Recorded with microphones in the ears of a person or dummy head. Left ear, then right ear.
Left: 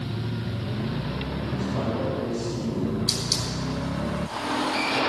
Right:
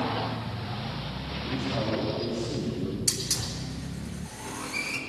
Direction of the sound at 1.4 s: 10° right (ahead or behind).